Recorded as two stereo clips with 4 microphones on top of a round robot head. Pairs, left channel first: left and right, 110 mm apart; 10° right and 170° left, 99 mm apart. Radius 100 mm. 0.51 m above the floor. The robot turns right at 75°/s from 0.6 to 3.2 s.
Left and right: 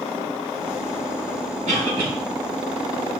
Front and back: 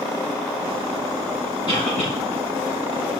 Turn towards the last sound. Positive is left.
turn(degrees=50)